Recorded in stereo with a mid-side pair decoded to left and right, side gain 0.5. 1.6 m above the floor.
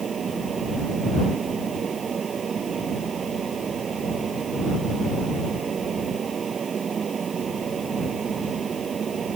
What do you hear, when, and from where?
0.0 s a fan: 40° right